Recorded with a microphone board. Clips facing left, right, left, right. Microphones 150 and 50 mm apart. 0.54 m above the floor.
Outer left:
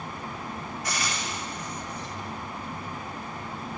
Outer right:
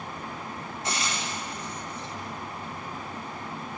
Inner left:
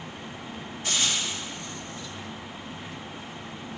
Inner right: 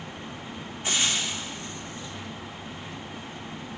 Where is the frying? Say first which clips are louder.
Outer right 2 dB, inner right 1 dB; 25° right (ahead or behind), 1.0 m.